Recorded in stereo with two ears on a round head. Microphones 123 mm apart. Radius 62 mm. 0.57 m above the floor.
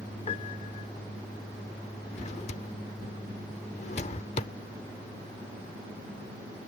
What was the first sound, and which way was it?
A piano, 45° left (ahead or behind).